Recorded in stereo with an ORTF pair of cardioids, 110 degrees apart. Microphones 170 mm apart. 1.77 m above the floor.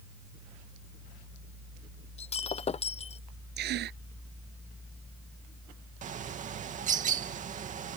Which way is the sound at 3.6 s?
70° right.